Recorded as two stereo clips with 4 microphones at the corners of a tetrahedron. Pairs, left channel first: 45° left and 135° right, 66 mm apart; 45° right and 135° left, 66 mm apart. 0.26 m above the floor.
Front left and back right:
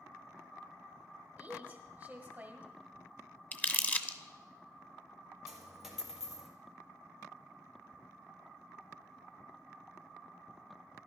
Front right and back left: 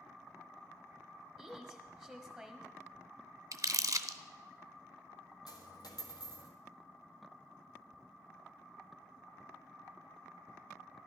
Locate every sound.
1.4 s a woman speaking: 130° right, 1.4 m
3.5 s crumpling: 110° left, 0.6 m
5.5 s a dropped coin: 50° right, 1.5 m